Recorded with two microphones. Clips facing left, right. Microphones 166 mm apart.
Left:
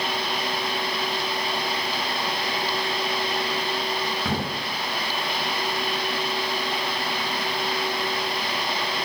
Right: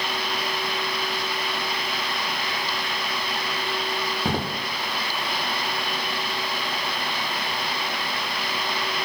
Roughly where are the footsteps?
Right.